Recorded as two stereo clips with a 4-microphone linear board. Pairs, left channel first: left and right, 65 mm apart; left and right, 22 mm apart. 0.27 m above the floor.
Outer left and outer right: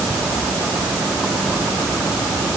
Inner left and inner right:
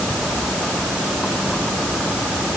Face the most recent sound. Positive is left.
No sound to turn to.